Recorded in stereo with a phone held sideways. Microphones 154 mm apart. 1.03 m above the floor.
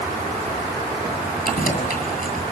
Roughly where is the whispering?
No whispering in this recording.